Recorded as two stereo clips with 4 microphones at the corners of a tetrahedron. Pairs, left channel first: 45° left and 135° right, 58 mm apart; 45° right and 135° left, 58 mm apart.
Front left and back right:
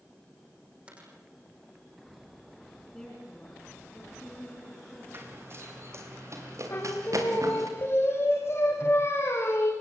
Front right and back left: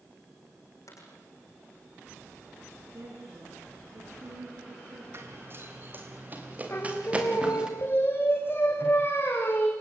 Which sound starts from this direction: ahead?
Singing, at 6.7 s.